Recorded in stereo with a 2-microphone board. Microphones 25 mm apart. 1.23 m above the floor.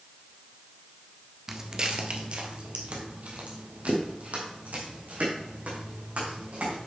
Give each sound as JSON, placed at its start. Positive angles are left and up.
{"t": 1.5, "sound": "footsteps", "side_deg": -20, "distance_m": 1.2}